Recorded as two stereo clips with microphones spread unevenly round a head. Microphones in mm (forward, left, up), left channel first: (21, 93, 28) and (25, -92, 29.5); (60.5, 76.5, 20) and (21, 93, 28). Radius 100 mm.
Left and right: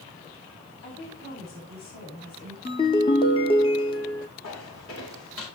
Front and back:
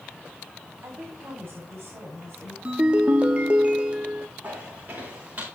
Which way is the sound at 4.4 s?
105° left.